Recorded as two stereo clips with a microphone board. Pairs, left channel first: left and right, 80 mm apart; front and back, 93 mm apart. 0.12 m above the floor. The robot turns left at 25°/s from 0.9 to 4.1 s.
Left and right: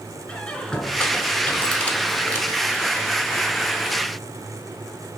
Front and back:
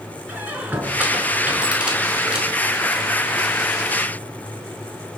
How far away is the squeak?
About 0.6 m.